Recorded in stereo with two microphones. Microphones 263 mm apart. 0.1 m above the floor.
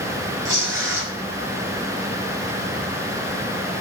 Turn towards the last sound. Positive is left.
turn(degrees=-45)  # may be behind; listen again after turning